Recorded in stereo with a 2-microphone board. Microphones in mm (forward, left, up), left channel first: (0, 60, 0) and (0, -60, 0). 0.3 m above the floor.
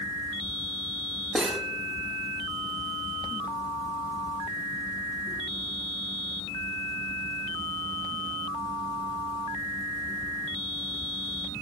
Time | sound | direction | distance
1.4 | cutlery clinking | 5° right (ahead or behind) | 1.1 m